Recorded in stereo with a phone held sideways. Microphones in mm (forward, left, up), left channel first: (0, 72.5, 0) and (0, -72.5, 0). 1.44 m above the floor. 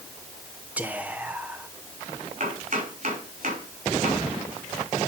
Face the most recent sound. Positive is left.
turn(degrees=-70)  # may be behind; listen again after turning